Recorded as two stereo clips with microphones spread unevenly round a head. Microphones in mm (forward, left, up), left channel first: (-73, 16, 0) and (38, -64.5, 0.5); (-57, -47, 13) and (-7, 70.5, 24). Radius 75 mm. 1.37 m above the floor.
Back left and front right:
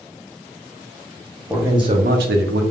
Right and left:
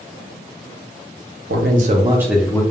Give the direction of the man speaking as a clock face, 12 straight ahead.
11 o'clock.